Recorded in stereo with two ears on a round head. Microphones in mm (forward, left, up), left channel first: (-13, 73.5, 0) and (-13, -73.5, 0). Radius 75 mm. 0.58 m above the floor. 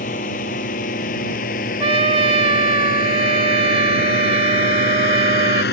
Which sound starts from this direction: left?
A drone, at 0.0 s.